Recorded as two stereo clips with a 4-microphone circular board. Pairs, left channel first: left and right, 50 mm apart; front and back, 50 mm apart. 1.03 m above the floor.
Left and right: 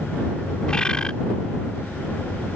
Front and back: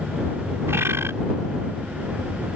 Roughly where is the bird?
Behind.